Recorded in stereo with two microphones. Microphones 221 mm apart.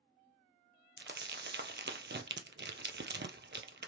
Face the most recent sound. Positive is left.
turn(degrees=-55)  # may be behind; listen again after turning